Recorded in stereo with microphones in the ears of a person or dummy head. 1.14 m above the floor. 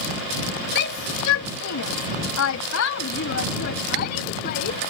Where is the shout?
50° left (ahead or behind).